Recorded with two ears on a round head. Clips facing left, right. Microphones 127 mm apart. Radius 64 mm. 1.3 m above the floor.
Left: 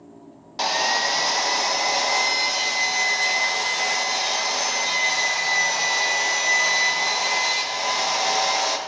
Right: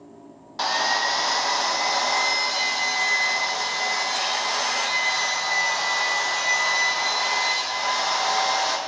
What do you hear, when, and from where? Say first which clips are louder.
0.6 s sawing: left 1 dB; 20° left (ahead or behind), 0.6 m